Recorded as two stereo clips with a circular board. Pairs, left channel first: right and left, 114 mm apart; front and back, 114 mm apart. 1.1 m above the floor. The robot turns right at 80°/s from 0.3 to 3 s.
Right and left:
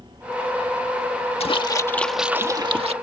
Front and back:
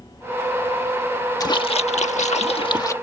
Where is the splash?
60° right; by 2.9 s 65° left.